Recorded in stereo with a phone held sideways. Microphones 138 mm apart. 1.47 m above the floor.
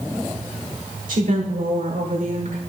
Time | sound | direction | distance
1.1 | a woman speaking | 80° right | 4.5 m